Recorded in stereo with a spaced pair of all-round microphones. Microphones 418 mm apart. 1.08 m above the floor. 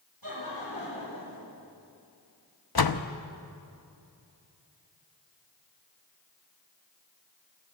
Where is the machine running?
I don't hear a machine running.